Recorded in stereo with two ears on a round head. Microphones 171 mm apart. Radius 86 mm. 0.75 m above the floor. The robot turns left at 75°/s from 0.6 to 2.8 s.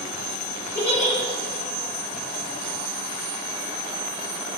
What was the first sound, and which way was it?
A giggle, 15° left (ahead or behind).